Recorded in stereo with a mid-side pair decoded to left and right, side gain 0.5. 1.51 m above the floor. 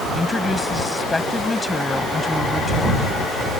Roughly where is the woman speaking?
Ahead.